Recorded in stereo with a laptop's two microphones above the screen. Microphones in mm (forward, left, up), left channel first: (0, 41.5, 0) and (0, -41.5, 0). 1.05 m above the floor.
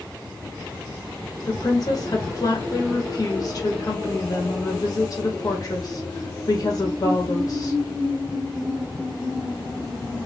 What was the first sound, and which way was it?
A woman speaking, 40° left (ahead or behind).